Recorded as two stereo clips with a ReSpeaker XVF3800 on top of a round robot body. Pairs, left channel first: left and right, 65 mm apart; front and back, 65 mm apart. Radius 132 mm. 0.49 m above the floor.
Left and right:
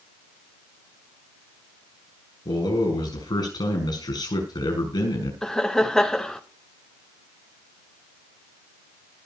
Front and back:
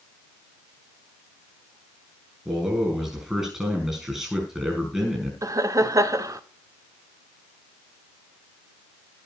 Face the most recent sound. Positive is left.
turn(degrees=170)